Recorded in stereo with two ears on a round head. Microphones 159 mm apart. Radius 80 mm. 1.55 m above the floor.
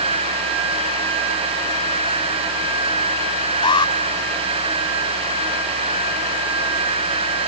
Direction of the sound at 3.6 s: 25° left (ahead or behind).